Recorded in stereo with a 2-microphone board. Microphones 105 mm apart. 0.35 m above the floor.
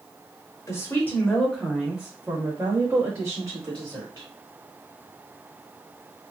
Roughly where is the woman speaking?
Left.